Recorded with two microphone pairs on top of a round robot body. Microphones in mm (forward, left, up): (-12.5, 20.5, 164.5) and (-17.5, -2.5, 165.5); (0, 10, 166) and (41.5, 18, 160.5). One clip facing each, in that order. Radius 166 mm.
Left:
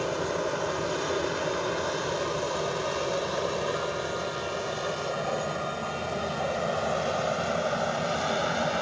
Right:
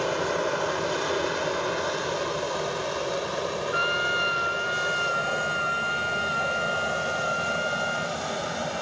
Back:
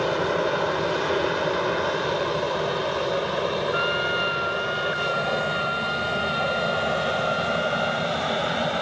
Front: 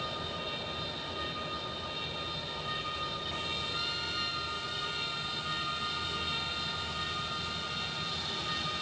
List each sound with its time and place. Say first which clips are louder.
0.0 s an aircraft: right 3 dB, back 15 dB; 165° right; by 8.8 s 150° left
3.7 s a trumpet: right 6 dB, back 13 dB; 120° right